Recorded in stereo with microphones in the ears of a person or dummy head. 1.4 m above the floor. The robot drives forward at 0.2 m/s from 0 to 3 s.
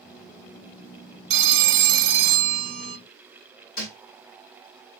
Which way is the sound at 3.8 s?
60° left (ahead or behind).